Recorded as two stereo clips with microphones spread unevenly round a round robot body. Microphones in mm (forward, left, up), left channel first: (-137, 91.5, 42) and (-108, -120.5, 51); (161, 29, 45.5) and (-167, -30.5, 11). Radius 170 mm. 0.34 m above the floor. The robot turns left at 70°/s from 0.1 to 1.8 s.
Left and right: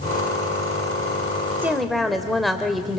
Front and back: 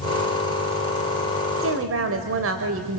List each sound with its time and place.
1.6 s a woman speaking: 160° right, 1.8 m; by 3.0 s 175° right, 1.8 m